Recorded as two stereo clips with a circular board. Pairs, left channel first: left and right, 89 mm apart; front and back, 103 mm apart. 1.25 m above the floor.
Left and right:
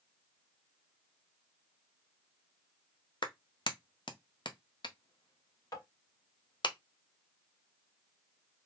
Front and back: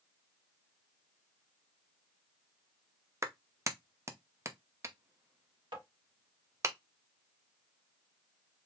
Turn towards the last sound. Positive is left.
turn(degrees=140)